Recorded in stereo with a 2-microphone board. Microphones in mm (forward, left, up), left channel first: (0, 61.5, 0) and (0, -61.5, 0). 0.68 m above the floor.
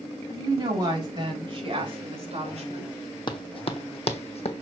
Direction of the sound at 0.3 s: 30° right (ahead or behind).